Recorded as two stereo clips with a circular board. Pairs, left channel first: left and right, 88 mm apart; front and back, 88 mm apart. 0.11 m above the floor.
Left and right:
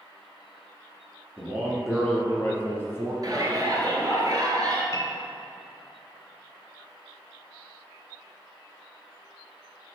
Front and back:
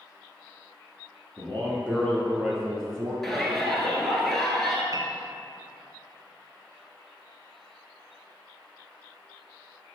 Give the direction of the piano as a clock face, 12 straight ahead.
8 o'clock.